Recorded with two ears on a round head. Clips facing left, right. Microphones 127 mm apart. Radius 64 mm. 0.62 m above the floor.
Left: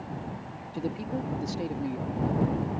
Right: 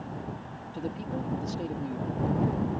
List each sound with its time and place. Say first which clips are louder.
0.7 s a man speaking: left 2 dB; 10° left (ahead or behind)